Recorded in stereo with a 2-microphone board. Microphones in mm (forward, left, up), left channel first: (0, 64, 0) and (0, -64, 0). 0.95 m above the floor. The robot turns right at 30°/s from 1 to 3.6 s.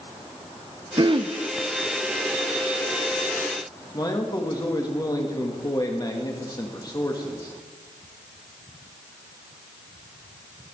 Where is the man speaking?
35° left (ahead or behind), 1.6 m.